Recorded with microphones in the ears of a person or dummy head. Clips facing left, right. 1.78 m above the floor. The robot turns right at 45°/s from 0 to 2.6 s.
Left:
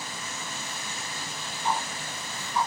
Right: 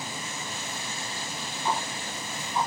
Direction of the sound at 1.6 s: 60° right (ahead or behind).